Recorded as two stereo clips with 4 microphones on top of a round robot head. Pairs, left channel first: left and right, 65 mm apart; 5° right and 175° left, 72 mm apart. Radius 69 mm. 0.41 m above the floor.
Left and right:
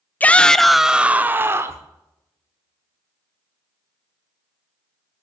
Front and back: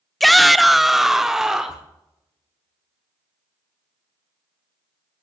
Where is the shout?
80° left, 0.8 m; by 1.9 s 105° right, 1.1 m.